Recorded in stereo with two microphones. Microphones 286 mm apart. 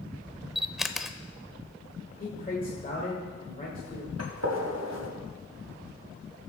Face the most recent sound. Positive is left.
turn(degrees=-60)  # may be behind; listen again after turning